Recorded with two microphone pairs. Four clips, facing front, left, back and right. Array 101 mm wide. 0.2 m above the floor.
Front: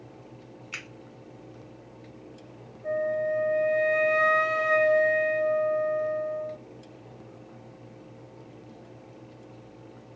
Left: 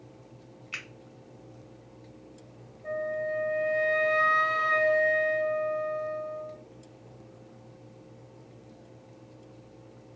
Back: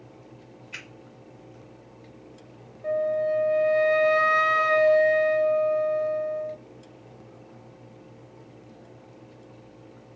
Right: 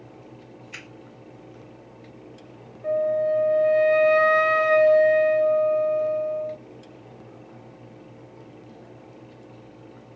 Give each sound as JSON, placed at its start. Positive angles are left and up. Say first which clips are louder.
{"t": 0.7, "sound": "a finger snap", "louder": "left 3 dB, front 2 dB", "azimuth_deg": 45, "distance_m": 2.0}
{"t": 2.8, "sound": "a flute", "louder": "right 9 dB, back 3 dB", "azimuth_deg": -140, "distance_m": 0.7}